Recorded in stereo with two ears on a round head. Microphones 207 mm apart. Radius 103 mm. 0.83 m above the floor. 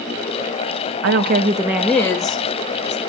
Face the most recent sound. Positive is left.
turn(degrees=30)  # may be behind; listen again after turning